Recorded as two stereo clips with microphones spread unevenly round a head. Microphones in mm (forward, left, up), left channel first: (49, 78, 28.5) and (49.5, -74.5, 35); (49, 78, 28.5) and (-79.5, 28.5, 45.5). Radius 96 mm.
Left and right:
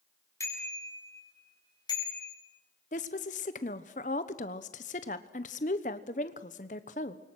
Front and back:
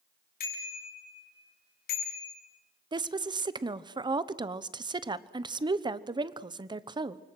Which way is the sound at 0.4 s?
20° left.